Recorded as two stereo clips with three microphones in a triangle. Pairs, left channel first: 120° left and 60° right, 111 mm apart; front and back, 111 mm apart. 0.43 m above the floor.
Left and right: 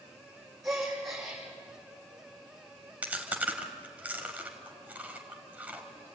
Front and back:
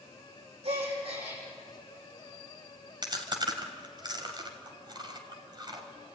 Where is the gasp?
150° right, 7.5 m.